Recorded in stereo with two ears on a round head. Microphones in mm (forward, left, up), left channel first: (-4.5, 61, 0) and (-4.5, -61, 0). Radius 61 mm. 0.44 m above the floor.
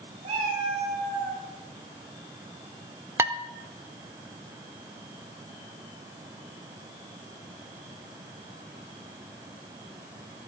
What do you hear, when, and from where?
0.2 s a cat meowing: 45° right (ahead or behind), 5.5 m; by 1.4 s 30° right (ahead or behind), 4.5 m
3.2 s dishes clattering: 20° right (ahead or behind), 0.7 m